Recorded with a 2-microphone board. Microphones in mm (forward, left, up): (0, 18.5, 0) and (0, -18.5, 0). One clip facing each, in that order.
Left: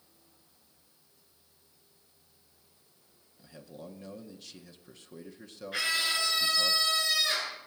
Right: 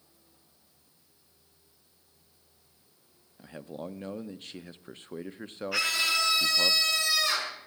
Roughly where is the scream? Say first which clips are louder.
Right 2 dB; right.